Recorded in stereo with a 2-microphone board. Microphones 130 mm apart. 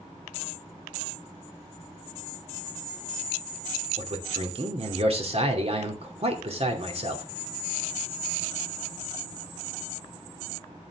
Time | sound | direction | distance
4.0 | a man speaking | 50° right (ahead or behind) | 2.5 m